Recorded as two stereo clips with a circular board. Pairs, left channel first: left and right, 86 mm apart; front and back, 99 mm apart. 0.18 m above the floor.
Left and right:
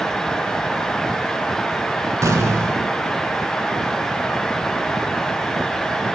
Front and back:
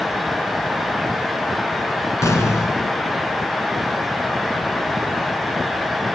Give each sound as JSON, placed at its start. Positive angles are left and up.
{"t": 2.2, "sound": "an explosion", "azimuth_deg": -50, "distance_m": 2.5}